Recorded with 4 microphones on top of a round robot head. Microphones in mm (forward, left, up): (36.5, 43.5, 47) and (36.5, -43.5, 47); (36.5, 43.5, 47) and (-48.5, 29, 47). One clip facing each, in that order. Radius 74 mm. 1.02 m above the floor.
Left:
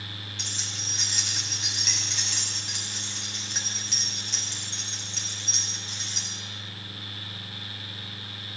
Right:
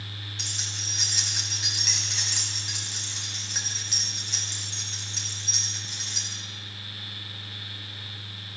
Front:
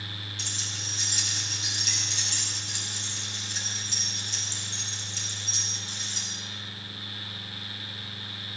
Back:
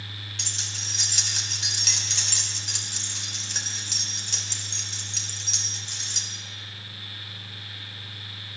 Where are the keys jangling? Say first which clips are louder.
Even, even; 175° right, 3.5 m.